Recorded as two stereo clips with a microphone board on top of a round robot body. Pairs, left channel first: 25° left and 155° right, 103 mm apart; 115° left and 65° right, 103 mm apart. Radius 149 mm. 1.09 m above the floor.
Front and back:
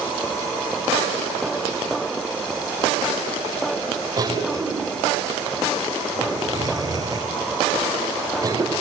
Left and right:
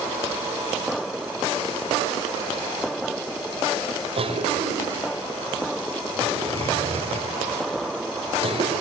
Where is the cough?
100° right, 4.5 m.